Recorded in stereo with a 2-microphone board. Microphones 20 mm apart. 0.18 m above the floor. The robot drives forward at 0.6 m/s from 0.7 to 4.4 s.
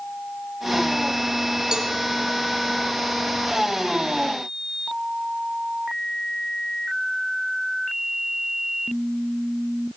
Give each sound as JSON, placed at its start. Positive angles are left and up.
{"t": 1.7, "sound": "a cowbell", "side_deg": -35, "distance_m": 1.5}